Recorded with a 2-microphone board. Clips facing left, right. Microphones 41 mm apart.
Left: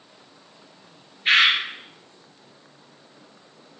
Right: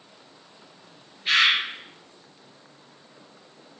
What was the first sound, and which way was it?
A bird, 40° left (ahead or behind).